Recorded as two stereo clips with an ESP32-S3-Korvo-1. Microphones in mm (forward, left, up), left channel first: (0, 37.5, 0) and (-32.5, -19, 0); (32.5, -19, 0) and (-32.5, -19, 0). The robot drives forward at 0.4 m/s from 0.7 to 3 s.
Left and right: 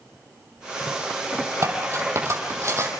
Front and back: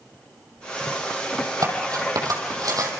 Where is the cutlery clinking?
160° right, 4 m; by 2.9 s 165° right, 4.5 m.